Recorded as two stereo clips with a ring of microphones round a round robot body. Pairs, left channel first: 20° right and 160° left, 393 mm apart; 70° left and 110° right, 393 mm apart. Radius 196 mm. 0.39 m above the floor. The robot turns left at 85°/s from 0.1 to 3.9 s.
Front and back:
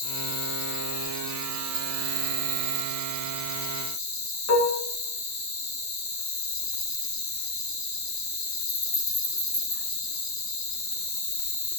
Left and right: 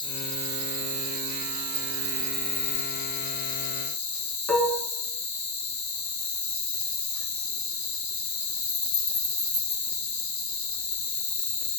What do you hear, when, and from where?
0.0 s an insect: 10° right, 2.5 m; by 11.8 s 25° left, 2.5 m
4.5 s dishes clattering: 20° right, 3.5 m